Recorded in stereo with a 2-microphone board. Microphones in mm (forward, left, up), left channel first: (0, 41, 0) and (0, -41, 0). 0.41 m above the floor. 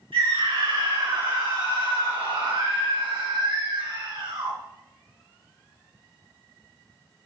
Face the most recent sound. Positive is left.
turn(degrees=-60)  # may be behind; listen again after turning